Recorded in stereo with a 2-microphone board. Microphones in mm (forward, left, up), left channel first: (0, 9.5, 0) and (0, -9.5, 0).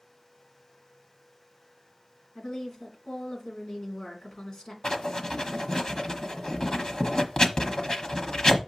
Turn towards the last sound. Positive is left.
turn(degrees=45)  # may be behind; listen again after turning